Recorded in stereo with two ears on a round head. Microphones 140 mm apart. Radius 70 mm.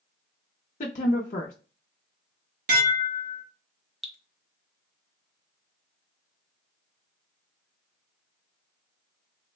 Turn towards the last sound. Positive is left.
turn(degrees=0)  # may be behind; listen again after turning